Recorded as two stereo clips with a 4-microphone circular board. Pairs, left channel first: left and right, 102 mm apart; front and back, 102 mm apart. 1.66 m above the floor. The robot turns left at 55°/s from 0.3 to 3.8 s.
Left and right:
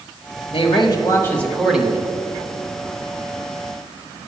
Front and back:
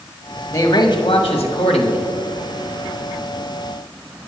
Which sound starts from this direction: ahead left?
A man speaking, at 0.5 s.